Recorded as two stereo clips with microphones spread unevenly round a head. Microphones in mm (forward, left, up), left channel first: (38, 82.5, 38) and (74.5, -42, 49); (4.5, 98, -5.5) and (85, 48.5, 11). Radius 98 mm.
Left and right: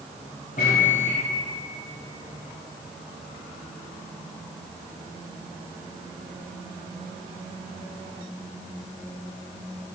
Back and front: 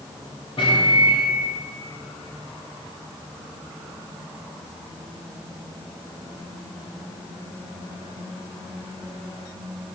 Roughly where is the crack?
No crack in this recording.